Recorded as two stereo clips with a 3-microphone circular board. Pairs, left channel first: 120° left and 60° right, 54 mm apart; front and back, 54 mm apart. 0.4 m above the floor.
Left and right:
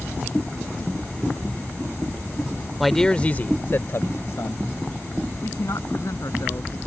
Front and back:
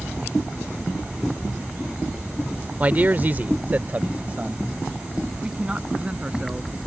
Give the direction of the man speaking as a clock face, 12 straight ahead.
5 o'clock.